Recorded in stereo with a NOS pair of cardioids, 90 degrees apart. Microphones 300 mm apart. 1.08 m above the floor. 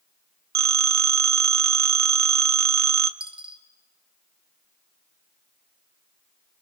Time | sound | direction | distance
0.6 | a phone ringing | 60° right | 1.3 m
3.2 | a dropped coin | 15° right | 3.5 m